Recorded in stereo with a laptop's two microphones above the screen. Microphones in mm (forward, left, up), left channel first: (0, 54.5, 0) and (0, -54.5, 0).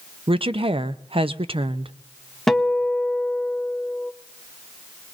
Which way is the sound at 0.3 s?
60° right (ahead or behind).